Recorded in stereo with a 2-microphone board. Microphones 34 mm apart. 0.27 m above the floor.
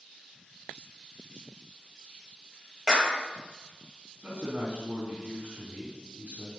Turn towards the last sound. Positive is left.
turn(degrees=-35)  # may be behind; listen again after turning